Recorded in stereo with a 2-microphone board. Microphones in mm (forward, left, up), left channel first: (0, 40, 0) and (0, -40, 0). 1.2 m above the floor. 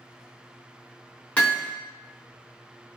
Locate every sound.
1.4 s hammering: 20° left (ahead or behind), 1.0 m